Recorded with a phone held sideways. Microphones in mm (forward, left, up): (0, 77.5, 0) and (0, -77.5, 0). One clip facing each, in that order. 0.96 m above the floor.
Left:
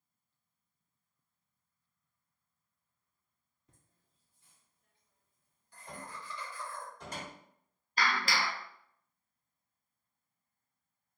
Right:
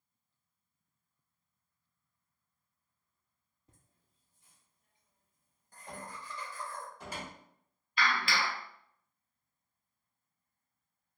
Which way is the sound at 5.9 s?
5° right (ahead or behind).